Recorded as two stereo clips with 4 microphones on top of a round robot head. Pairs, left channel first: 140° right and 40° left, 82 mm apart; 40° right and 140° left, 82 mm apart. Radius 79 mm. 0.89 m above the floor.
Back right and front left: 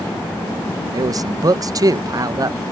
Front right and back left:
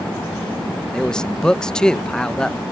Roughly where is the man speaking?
Ahead left.